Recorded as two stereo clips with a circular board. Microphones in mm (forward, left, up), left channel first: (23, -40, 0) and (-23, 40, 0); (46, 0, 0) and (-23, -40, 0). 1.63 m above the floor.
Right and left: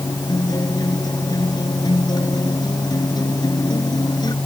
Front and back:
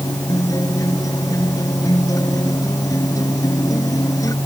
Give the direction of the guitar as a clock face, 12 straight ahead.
1 o'clock.